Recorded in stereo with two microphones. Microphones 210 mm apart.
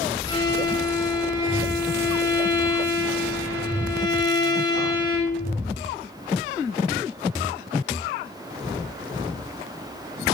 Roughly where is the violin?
Left.